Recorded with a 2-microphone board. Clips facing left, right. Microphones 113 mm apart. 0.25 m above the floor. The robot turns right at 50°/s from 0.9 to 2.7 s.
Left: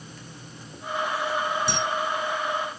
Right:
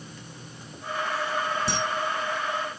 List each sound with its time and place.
1.7 s a camera shutter: 40° right (ahead or behind), 1.0 m; by 1.8 s 35° right (ahead or behind), 1.0 m